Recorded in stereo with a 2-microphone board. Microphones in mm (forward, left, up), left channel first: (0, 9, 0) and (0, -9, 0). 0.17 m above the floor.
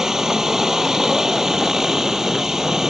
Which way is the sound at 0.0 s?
30° right (ahead or behind).